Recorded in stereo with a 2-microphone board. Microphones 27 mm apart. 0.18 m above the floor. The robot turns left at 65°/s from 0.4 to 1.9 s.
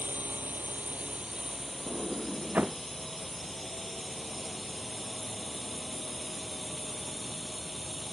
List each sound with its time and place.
0.0 s a drone: 90° right; by 8.2 s 170° left
1.9 s a sliding door: 60° right (ahead or behind); by 2.8 s 55° right (ahead or behind)